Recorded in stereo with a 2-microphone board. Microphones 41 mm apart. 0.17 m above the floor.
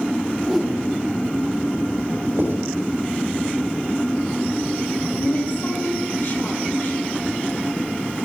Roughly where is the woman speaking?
Left.